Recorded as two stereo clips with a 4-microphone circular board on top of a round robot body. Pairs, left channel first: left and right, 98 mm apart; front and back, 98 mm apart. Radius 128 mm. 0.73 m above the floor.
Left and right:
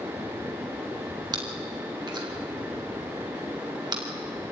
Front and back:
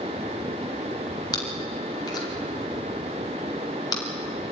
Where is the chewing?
45° right, 4 m.